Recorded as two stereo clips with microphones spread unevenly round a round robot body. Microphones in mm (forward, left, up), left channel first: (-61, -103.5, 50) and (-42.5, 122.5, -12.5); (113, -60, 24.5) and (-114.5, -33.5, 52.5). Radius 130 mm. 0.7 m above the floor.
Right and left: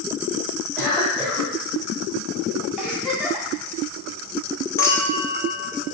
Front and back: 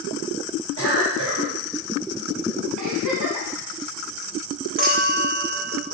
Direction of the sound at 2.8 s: 175° left.